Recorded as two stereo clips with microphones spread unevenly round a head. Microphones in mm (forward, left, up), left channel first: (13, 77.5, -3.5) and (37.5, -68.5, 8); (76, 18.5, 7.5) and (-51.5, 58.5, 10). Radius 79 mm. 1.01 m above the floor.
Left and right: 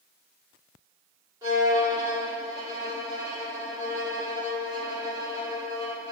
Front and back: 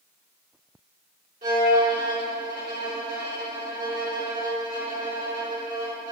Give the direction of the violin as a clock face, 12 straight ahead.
5 o'clock.